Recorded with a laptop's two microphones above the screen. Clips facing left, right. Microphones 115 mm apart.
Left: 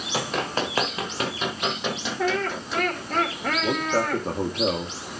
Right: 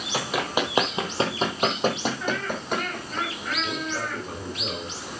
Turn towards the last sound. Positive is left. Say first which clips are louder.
# left 9 dB
turn(degrees=60)  # may be behind; listen again after turning